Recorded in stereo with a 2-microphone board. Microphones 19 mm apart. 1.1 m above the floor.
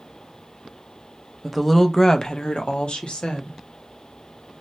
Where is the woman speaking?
Centre (ahead or behind), 0.6 m; by 3.6 s 85° left, 1.1 m.